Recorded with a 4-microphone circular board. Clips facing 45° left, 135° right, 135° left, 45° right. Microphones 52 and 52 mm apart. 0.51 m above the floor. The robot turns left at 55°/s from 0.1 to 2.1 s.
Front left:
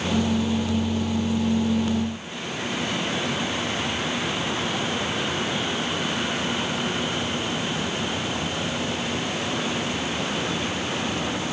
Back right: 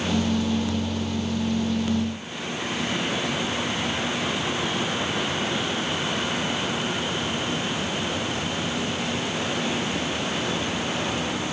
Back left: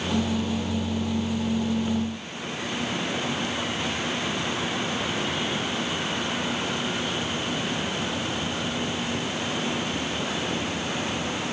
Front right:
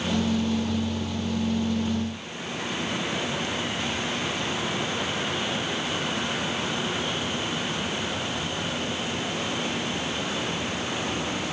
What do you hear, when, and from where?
Only background noise.